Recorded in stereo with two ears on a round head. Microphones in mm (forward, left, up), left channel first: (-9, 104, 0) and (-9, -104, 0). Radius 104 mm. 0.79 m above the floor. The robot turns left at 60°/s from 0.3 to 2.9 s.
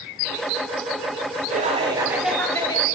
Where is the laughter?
130° right, 1.2 m; by 2.9 s 150° left, 1.2 m.